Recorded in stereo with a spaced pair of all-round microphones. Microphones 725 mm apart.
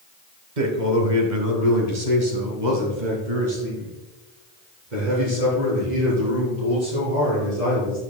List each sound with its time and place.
0.6 s a man speaking: 75° right (ahead or behind), 1.2 m